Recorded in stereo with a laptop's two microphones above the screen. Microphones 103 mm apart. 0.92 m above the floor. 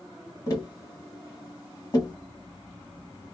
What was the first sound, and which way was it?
Tapping, 35° left (ahead or behind).